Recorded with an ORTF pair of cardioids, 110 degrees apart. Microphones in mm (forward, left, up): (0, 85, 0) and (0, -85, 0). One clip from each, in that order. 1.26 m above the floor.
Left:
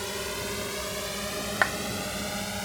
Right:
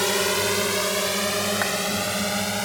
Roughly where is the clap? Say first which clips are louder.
Even; ahead.